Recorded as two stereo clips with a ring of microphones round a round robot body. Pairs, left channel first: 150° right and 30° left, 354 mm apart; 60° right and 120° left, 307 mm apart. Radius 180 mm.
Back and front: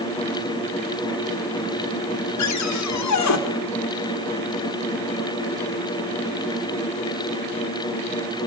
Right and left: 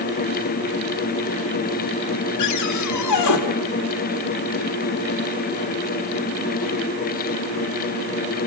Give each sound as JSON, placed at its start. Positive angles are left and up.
{"t": 2.4, "sound": "a cupboard door", "azimuth_deg": -105, "distance_m": 2.5}